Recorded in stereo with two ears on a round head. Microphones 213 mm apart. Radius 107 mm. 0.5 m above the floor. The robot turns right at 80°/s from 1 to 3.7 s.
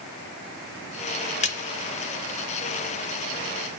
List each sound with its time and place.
1.4 s a splash: 30° left (ahead or behind), 1.3 m; by 1.6 s 40° left (ahead or behind), 1.3 m